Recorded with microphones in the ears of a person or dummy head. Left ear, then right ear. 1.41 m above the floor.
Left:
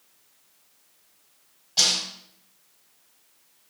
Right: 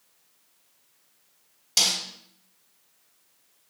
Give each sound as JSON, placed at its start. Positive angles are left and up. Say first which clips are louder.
{"t": 1.8, "sound": "a snare drum", "louder": "left 2 dB", "side_deg": -60, "distance_m": 3.5}